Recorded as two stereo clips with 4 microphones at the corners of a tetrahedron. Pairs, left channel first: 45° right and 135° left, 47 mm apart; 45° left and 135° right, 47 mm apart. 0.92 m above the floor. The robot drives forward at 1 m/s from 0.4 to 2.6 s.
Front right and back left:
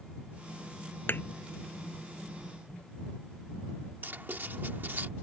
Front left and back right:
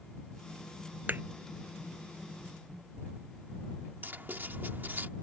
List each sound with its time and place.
1.1 s a thud: 90° right
4.0 s writing: straight behind